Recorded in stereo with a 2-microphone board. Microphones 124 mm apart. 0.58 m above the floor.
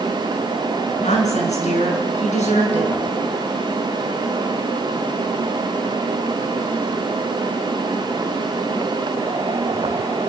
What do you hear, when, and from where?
1.0 s a woman speaking: 70° left (ahead or behind), 5.5 m